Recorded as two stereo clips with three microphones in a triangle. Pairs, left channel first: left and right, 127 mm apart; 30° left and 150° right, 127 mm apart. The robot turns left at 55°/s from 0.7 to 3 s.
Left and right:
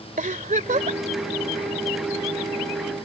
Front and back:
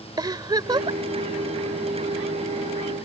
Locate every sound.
0.2 s a giggle: 90° right; by 1.0 s 110° right